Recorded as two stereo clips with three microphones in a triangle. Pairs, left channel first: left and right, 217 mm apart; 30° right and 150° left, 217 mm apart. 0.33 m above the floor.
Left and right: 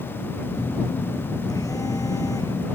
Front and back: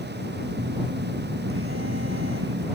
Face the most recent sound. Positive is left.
turn(degrees=165)